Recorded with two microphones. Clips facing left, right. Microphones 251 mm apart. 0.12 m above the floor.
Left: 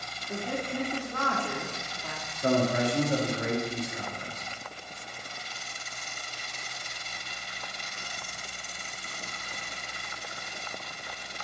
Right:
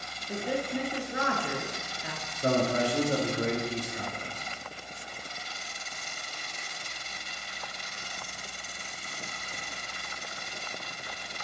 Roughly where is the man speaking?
Right.